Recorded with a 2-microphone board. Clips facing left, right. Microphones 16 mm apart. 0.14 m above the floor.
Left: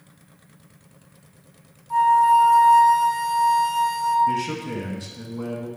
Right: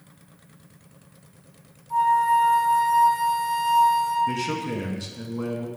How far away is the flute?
About 1.1 m.